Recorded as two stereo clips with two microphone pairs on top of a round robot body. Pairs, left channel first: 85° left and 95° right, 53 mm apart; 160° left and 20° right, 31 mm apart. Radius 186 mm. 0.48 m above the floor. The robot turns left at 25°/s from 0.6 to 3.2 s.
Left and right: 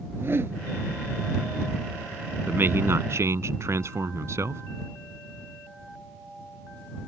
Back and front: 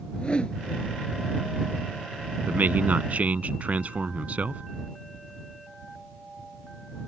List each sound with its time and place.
0.1 s a whoosh: 140° right; by 0.6 s 145° right
2.5 s a man speaking: 40° right; by 4.6 s 60° right